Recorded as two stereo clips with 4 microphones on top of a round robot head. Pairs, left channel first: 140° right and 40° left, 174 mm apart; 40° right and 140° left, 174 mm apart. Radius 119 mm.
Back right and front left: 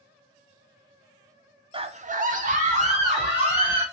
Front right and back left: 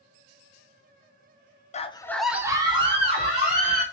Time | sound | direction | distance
1.7 | a scream | 10° right | 0.6 m